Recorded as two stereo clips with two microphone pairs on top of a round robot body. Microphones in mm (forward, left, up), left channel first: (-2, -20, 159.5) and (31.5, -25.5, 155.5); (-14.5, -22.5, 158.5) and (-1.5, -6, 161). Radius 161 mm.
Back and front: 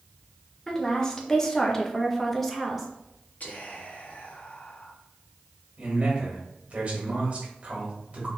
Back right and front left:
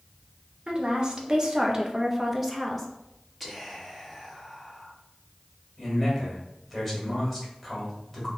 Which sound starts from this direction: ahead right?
A man speaking, at 5.8 s.